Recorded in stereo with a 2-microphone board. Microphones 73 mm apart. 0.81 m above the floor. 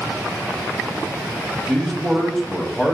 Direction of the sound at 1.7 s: 10° left (ahead or behind).